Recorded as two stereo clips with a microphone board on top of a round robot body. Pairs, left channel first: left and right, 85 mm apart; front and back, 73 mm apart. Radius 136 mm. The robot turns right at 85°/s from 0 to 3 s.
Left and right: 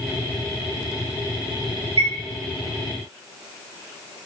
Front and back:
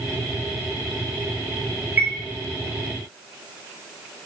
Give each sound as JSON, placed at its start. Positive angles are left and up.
{"t": 2.0, "sound": "a chime", "azimuth_deg": -115, "distance_m": 0.9}